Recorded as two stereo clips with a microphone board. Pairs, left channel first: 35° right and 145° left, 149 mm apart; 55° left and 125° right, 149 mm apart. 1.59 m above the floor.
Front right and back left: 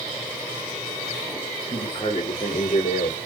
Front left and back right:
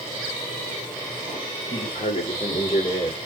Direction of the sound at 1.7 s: 25° left.